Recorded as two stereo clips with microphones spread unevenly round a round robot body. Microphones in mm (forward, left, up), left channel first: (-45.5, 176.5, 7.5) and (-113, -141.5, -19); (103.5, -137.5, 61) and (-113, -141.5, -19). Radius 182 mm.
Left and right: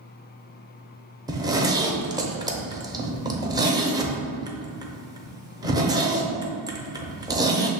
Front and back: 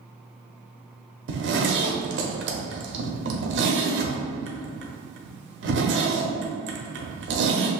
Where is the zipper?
Straight behind, 0.7 m.